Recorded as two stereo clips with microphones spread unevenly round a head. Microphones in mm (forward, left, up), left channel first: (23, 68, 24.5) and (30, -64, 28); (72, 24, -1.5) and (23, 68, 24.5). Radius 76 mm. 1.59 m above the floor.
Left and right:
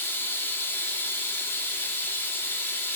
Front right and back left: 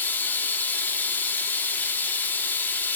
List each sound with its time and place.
0.0 s running water: 35° left, 1.2 m